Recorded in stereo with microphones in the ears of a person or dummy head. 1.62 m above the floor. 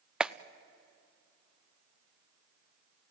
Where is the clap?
5° right (ahead or behind), 0.5 m.